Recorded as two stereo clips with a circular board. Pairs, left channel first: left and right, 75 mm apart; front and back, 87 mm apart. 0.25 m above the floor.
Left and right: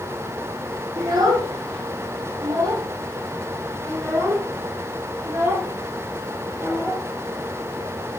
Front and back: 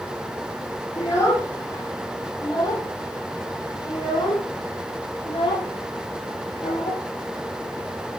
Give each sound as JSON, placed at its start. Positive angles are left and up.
{"t": 1.0, "sound": "a child speaking", "azimuth_deg": -60, "distance_m": 5.5}